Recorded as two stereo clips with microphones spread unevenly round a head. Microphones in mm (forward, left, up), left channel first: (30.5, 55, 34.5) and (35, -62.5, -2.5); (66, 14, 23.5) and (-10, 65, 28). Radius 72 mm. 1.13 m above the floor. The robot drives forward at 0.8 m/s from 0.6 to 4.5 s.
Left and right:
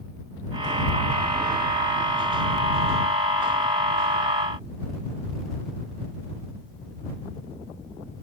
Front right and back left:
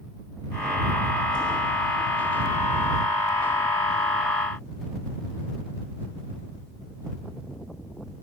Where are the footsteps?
No footsteps in this recording.